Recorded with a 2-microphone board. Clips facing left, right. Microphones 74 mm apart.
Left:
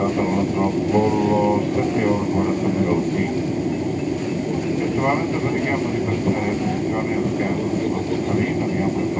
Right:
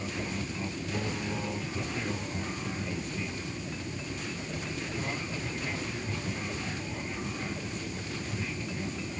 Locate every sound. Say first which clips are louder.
0.0 s an aircraft: left 16 dB; 60° left (ahead or behind)